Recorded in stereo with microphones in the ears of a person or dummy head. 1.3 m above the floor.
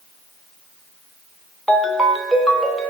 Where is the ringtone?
5° left (ahead or behind), 0.9 m.